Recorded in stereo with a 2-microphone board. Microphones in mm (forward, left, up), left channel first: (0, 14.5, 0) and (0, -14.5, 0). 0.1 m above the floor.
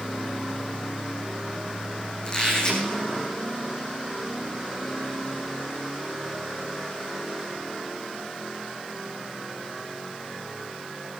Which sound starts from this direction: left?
A squeak, at 2.2 s.